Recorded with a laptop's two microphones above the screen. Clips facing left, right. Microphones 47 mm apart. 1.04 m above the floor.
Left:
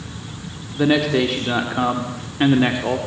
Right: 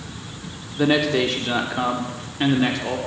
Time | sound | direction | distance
0.7 | a man speaking | centre (ahead or behind) | 3.5 m